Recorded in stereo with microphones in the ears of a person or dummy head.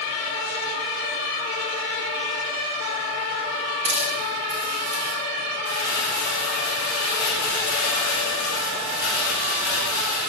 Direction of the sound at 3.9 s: 70° right (ahead or behind).